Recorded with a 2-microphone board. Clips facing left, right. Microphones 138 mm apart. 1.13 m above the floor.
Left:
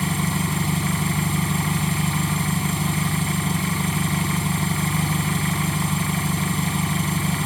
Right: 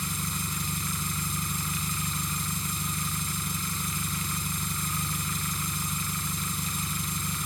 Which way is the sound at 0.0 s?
75° left (ahead or behind).